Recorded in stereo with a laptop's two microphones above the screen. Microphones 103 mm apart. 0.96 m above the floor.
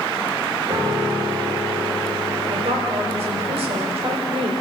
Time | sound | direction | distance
0.7 | a piano | 60° right (ahead or behind) | 4 m
2.5 | a woman speaking | 80° right | 4.5 m